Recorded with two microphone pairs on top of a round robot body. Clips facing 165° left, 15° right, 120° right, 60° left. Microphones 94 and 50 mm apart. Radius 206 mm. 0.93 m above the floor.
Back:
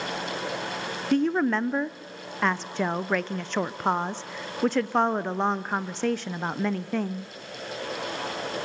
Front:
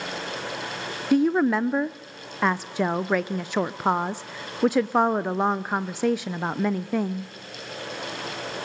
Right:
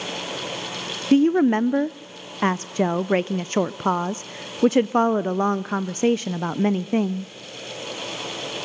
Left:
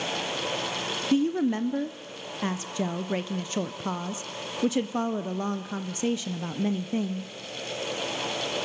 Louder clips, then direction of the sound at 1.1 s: Front 3 dB, right 8 dB; 90° right.